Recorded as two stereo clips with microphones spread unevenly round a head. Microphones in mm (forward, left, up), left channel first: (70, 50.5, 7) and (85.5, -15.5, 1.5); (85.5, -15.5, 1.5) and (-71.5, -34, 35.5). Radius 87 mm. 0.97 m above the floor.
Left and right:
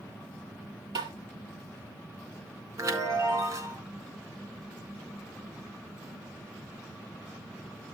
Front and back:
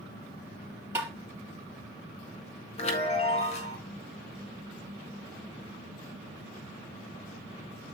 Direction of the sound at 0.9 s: 100° right.